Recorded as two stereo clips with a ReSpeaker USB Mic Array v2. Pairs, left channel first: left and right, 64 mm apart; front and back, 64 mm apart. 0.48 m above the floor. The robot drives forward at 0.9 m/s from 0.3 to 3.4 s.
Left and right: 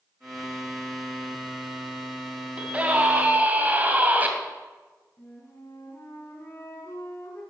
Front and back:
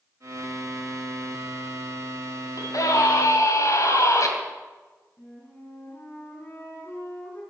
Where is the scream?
20° right, 3.5 m; by 4.3 s 25° right, 3 m.